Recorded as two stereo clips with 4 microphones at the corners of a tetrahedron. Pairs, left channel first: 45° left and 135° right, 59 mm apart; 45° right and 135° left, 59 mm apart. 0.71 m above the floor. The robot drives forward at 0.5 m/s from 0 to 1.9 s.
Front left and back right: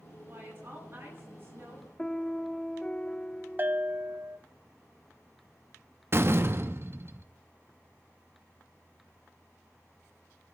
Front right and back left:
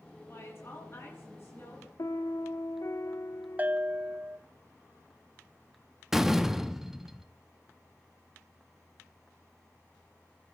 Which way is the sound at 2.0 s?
35° right.